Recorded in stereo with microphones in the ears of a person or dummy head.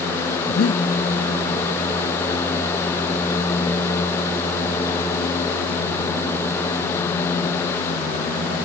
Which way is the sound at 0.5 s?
70° left (ahead or behind).